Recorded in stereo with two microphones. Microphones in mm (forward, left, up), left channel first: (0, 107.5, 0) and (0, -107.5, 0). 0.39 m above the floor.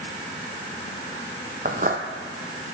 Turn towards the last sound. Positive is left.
turn(degrees=-40)  # may be behind; listen again after turning